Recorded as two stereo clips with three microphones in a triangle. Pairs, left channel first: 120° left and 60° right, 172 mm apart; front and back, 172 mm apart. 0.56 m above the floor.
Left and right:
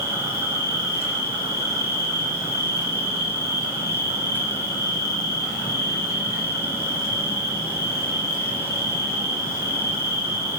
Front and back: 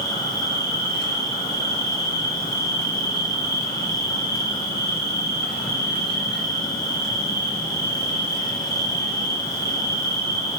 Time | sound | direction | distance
0.0 | an insect | 15° left | 6.5 m